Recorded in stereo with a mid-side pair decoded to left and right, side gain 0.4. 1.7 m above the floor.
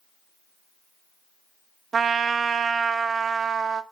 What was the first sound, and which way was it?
A trumpet, 50° right.